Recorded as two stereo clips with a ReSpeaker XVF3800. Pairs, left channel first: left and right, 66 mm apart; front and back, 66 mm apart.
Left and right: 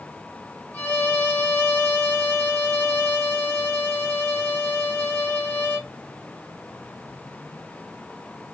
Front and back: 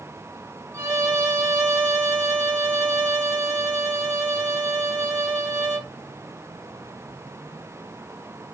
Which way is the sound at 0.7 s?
150° left.